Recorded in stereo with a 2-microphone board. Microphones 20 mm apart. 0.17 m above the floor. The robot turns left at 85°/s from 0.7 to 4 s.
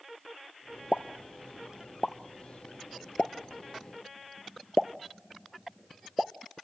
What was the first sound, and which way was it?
A pop, 70° right (ahead or behind).